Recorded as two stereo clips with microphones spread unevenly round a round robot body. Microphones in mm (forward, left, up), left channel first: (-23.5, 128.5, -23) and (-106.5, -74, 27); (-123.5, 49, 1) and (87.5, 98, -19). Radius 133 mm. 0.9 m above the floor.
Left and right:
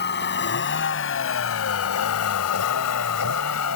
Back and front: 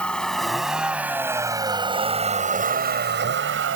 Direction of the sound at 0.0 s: 110° left.